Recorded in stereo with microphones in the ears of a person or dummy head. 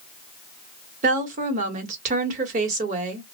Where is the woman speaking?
45° right (ahead or behind), 1.2 m.